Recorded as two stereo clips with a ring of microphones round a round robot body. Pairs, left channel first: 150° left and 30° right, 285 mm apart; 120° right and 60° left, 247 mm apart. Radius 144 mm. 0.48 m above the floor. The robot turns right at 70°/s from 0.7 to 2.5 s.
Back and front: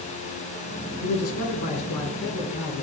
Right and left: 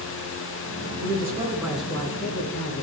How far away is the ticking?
I don't hear ticking.